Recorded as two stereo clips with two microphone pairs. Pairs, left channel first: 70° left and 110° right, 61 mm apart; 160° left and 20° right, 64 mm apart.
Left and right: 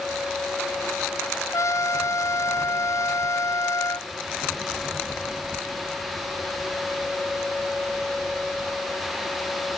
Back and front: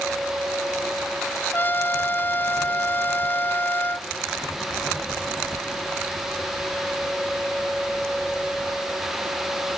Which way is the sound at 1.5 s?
100° left.